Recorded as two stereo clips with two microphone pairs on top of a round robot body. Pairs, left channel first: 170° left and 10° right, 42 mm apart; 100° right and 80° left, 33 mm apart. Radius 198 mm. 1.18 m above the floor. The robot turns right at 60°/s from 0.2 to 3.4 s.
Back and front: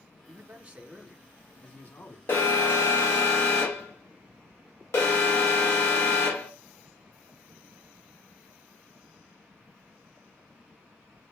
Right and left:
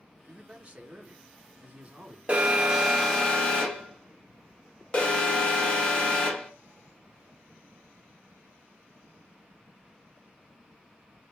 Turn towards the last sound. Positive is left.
turn(degrees=-165)